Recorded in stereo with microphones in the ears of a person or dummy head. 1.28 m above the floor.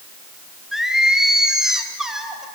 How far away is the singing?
About 2.5 m.